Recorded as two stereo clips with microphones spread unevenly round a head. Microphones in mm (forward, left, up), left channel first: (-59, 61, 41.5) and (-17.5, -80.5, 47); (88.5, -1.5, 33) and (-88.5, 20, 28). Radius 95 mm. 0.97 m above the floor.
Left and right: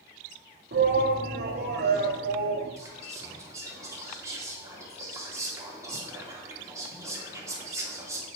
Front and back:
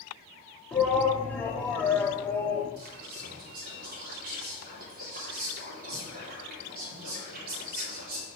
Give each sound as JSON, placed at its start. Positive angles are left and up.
{"t": 0.7, "sound": "a shout", "azimuth_deg": -90, "distance_m": 1.6}
{"t": 2.8, "sound": "whispering", "azimuth_deg": -145, "distance_m": 2.5}